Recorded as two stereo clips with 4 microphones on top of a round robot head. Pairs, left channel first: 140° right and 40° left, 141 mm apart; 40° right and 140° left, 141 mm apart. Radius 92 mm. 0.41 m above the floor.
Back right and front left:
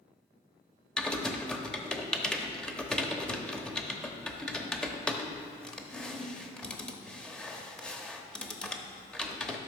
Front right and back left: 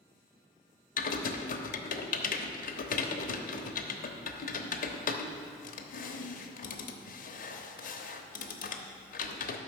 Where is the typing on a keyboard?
55° right, 1.0 m.